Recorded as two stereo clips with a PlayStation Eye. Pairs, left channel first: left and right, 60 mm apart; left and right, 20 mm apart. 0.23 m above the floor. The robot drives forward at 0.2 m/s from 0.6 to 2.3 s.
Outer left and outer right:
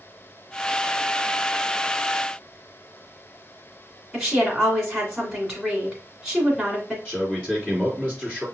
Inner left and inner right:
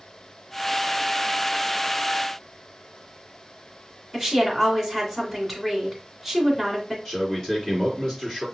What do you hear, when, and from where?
4.1 s a woman speaking: centre (ahead or behind), 2 m
7.0 s a man speaking: 15° left (ahead or behind), 3.5 m